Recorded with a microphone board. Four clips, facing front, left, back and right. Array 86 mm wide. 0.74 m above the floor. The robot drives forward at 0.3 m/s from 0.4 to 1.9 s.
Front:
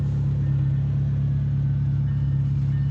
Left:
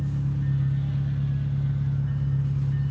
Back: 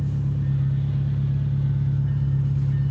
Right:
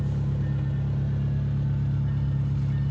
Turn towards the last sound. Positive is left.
turn(degrees=-105)